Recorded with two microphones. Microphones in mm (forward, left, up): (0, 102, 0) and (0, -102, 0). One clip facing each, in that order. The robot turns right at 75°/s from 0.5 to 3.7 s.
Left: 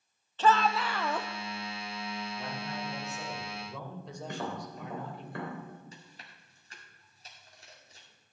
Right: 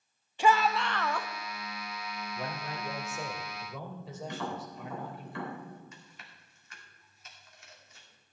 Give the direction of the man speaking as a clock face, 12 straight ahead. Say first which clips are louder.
Even; 4 o'clock.